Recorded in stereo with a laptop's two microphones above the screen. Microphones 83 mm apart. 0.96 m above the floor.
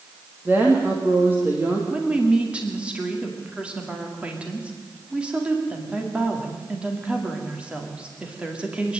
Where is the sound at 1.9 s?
15° right (ahead or behind), 2 m.